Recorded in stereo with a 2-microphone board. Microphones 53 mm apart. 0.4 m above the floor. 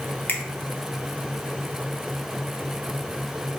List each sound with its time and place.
0.3 s a finger snap: 35° left (ahead or behind), 1.0 m